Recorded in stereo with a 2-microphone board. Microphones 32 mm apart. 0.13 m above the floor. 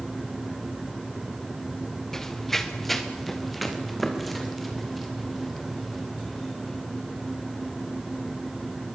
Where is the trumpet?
I don't hear a trumpet.